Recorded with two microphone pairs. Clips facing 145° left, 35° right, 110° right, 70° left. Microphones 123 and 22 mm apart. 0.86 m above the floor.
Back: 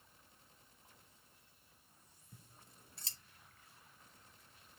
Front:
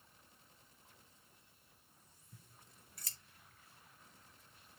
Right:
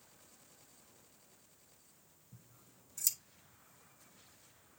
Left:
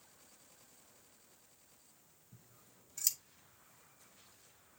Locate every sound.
2.3 s scissors: 110° left, 1.0 m